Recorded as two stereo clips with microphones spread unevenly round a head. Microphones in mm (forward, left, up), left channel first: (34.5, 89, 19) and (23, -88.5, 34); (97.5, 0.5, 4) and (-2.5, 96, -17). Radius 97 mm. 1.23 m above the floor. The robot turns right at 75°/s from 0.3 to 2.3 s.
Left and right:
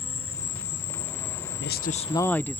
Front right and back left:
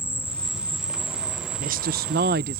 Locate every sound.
0.0 s an insect: 30° left; by 2.6 s straight behind
1.6 s a woman speaking: 115° left; by 2.6 s 165° left